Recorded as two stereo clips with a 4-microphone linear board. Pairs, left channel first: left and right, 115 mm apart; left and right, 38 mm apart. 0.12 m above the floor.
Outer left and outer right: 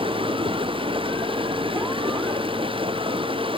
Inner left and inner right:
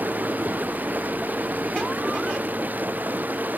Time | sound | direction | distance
0.0 | running water | 50° right (ahead or behind) | ?